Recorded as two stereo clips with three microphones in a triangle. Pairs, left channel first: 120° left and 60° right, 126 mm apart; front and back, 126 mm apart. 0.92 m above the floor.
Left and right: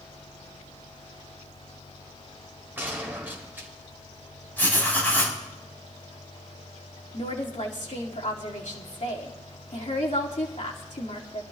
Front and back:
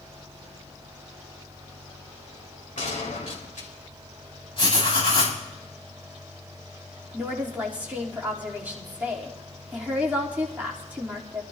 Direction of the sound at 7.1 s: 105° left.